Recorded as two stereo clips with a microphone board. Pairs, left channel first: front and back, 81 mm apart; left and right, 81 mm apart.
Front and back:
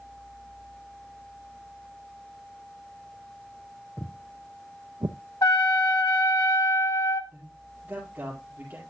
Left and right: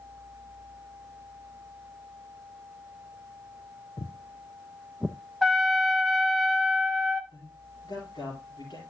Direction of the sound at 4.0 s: 80° left.